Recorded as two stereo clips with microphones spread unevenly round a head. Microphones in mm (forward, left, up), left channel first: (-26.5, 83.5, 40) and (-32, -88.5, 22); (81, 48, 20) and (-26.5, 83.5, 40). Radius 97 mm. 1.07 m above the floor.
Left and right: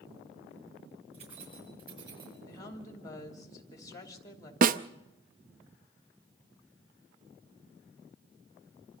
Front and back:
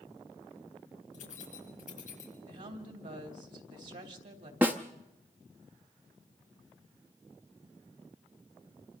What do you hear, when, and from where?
1.1 s keys jangling: 30° right, 5.5 m; by 2.3 s 25° right, 5.5 m
2.5 s a woman speaking: 160° left, 3 m
4.6 s a snare drum: 125° right, 0.5 m